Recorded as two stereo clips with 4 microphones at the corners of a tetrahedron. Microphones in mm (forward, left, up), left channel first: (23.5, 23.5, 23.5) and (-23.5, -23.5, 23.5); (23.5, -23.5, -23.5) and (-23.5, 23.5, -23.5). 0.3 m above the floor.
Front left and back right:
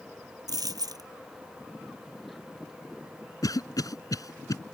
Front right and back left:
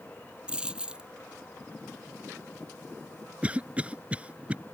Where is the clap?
No clap in this recording.